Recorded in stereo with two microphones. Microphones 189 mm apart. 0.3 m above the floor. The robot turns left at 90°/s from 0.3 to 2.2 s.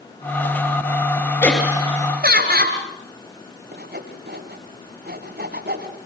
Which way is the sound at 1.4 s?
15° left.